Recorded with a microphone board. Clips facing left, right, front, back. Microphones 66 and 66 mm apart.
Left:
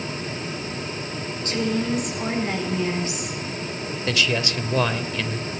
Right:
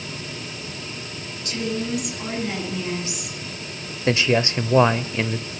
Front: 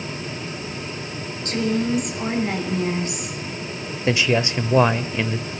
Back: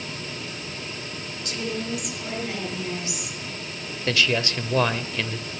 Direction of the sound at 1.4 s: 40° left.